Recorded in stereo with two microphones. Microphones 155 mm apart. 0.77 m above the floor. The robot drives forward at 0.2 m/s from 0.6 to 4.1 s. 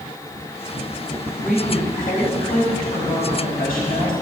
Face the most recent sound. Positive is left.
turn(degrees=80)